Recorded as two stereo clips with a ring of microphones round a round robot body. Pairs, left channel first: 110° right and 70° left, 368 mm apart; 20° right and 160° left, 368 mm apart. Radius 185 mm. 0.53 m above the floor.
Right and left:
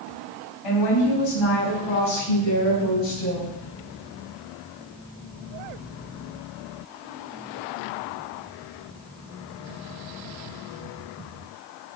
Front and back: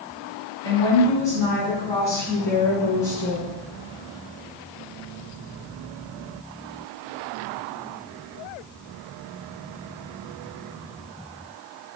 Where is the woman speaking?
105° right, 3.5 m.